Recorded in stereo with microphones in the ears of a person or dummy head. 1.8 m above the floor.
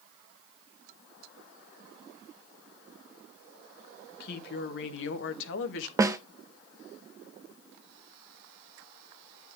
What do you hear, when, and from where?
4.2 s a woman speaking: 60° left (ahead or behind), 1.2 m; by 5.9 s 70° left (ahead or behind), 1.2 m
6.0 s a snare drum: 20° right (ahead or behind), 0.6 m